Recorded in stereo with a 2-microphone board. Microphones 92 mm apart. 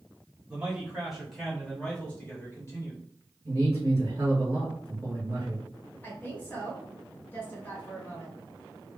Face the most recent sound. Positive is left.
turn(degrees=20)  # may be behind; listen again after turning